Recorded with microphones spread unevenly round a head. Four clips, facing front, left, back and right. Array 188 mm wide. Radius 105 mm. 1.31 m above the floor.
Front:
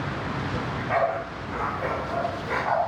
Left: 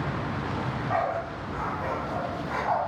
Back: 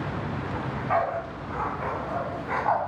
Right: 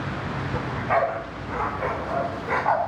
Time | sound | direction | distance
0.5 | a dog barking | 95° right | 2.5 m